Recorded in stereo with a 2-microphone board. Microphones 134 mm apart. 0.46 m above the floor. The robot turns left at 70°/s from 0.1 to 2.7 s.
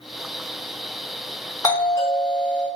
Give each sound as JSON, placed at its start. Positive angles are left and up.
{"t": 1.6, "sound": "a doorbell", "side_deg": 25, "distance_m": 1.7}